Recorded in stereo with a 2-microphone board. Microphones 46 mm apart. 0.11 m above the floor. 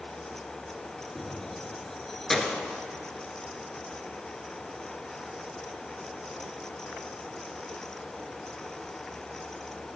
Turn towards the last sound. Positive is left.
turn(degrees=10)  # may be behind; listen again after turning